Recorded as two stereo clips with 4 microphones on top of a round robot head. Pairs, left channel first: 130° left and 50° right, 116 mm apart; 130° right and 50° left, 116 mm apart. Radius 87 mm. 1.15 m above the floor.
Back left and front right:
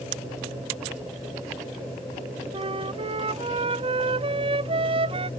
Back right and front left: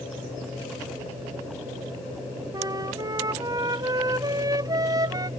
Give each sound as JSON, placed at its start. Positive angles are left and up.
{"t": 2.5, "sound": "a flute", "azimuth_deg": -10}